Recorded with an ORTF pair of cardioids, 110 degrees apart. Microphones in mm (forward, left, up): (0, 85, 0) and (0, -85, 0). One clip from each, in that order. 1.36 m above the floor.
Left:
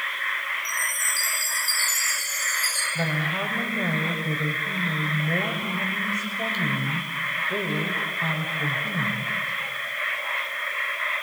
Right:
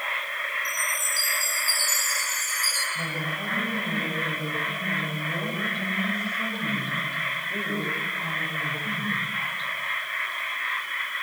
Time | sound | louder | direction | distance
0.7 | a chime | left 1 dB | 5° right | 9.5 m
3.0 | a woman speaking | left 3 dB | 50° left | 6 m